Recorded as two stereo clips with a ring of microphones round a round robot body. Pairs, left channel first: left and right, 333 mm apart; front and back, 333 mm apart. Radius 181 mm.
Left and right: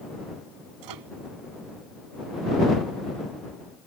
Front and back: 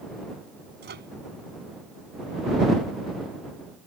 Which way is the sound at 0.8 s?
120° right.